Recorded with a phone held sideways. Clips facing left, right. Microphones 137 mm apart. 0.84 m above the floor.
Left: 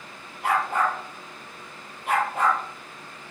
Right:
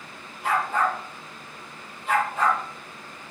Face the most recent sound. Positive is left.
turn(degrees=60)  # may be behind; listen again after turning